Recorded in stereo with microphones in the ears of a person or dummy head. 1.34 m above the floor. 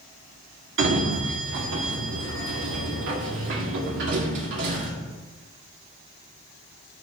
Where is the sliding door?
65° right (ahead or behind), 1.9 m.